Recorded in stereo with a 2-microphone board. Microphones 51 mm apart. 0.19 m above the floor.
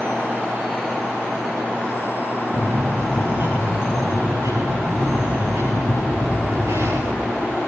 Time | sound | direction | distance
2.5 | a bird | 60° right (ahead or behind) | 7 m